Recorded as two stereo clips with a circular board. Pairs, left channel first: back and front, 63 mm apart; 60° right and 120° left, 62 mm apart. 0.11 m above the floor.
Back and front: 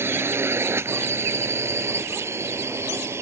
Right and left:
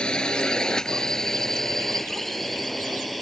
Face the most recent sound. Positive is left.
turn(degrees=30)